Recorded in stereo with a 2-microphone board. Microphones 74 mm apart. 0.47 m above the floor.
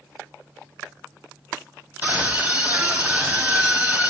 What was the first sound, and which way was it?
A scream, 25° right (ahead or behind).